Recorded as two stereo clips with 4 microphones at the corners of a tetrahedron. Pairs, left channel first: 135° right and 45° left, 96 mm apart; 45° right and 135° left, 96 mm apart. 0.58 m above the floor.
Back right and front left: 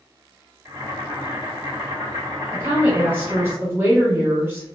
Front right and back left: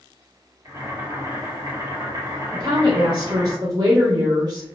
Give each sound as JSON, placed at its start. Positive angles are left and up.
{"t": 0.7, "sound": "boiling", "azimuth_deg": 90, "distance_m": 1.6}
{"t": 2.5, "sound": "a woman speaking", "azimuth_deg": 105, "distance_m": 0.9}